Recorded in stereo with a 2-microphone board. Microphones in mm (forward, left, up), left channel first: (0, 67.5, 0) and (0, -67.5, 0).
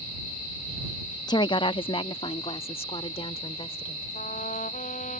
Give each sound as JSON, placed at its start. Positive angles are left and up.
{"t": 1.3, "sound": "a woman speaking", "side_deg": 30}
{"t": 4.2, "sound": "a trumpet", "side_deg": 65}